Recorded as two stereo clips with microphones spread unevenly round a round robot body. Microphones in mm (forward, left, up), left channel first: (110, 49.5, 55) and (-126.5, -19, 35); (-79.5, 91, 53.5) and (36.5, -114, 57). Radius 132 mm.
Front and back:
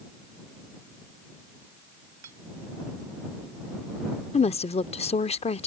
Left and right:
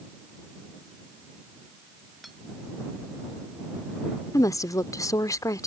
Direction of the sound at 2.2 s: 150° right.